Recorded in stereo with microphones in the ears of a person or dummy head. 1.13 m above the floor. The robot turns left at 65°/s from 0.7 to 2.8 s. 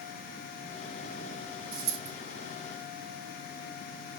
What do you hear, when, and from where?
1.7 s a dropped coin: 50° right (ahead or behind), 1.4 m; by 2.1 s 65° right (ahead or behind), 1.4 m